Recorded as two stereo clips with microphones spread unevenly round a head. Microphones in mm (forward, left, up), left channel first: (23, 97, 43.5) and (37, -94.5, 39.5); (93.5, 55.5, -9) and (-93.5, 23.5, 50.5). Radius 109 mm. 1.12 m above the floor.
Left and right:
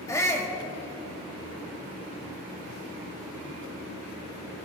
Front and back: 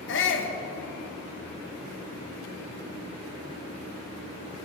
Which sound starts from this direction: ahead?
A shout, at 0.1 s.